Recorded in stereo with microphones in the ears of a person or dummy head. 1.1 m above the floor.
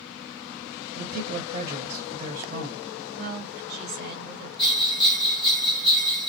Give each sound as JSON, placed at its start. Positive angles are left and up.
{"t": 0.9, "sound": "a man speaking", "side_deg": -40, "distance_m": 1.6}
{"t": 3.2, "sound": "a woman speaking", "side_deg": -45, "distance_m": 1.6}
{"t": 4.6, "sound": "a bell", "side_deg": 25, "distance_m": 0.8}